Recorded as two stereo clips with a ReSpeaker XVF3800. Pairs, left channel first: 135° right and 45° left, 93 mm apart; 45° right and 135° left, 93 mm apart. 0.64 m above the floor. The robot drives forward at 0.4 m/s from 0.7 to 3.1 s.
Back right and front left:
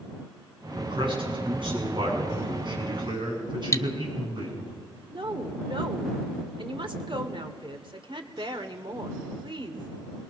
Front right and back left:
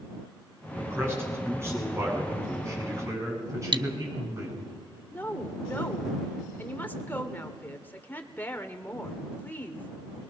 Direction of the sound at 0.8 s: 70° left.